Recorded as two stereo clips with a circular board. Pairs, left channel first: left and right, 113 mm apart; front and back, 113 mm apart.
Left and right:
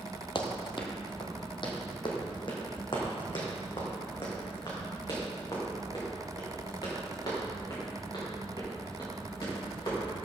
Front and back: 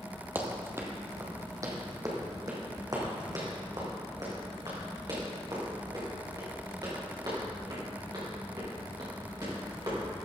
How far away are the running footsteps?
About 1.5 m.